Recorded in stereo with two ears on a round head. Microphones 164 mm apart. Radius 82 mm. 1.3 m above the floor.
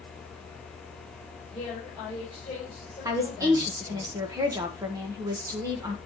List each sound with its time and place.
1.5 s a woman speaking: 15° left (ahead or behind), 5 m
3.0 s a woman speaking: 20° right (ahead or behind), 1.4 m